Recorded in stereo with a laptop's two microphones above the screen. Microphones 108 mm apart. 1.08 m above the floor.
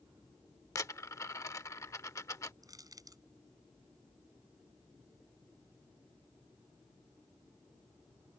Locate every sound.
0.8 s a dropped coin: 30° left (ahead or behind)
2.6 s crushing: 35° right (ahead or behind)